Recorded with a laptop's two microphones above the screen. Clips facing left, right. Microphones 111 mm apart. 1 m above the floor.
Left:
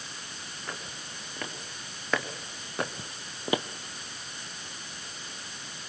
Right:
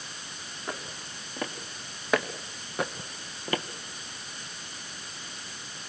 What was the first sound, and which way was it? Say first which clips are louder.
Footsteps: right 4 dB; 20° right (ahead or behind).